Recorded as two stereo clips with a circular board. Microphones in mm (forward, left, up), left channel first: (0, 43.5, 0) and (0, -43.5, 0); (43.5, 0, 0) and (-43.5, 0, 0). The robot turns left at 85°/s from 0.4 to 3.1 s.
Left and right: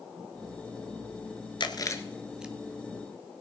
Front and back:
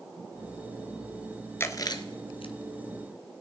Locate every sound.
1.6 s chewing: 65° left, 1.1 m; by 2.5 s 15° right, 1.1 m